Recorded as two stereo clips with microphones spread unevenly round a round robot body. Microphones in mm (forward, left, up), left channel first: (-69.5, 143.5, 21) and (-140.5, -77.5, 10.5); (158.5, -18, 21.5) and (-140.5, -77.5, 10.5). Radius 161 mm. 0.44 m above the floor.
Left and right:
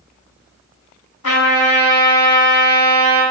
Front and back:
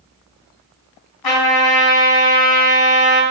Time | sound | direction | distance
1.2 | a trumpet | 30° left | 3 m